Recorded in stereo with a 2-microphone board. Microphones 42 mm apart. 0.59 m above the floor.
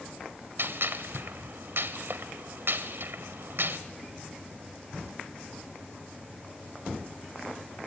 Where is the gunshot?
65° right (ahead or behind), 1.3 m.